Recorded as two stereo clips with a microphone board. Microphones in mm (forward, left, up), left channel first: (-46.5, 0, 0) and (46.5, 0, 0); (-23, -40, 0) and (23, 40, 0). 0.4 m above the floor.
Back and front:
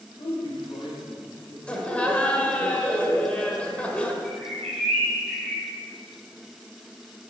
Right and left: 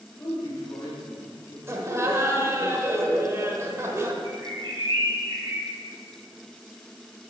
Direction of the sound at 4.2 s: 100° left.